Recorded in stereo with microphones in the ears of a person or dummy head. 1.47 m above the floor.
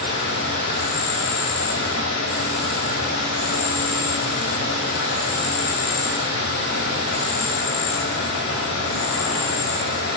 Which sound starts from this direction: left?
An insect, at 0.0 s.